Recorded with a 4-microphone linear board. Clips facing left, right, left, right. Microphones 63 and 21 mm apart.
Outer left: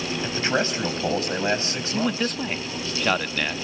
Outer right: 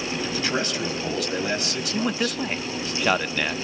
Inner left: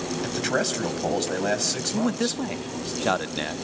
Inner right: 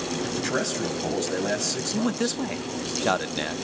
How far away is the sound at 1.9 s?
About 0.6 m.